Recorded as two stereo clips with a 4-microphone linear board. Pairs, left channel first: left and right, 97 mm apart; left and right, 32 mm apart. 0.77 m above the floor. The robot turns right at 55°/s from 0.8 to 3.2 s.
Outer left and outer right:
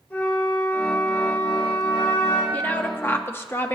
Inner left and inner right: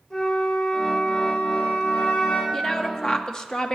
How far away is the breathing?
No breathing in this recording.